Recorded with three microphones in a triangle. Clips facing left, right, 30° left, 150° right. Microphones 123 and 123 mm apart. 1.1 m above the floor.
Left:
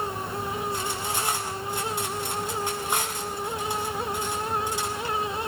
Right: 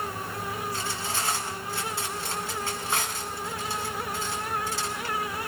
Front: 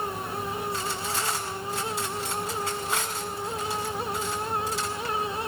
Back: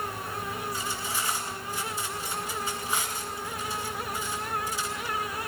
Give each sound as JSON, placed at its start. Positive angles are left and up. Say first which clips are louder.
{"t": 0.7, "sound": "cutlery clinking", "louder": "left 2 dB, front 3 dB", "azimuth_deg": 20, "distance_m": 6.5}